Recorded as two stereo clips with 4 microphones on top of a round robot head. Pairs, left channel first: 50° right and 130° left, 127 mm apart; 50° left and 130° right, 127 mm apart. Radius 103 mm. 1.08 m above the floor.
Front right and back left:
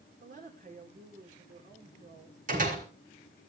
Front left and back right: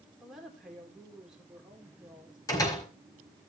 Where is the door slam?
115° left, 5.5 m.